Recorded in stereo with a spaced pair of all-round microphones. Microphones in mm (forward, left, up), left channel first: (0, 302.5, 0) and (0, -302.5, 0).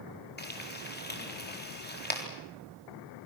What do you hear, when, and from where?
0.4 s frying: 15° left (ahead or behind), 4 m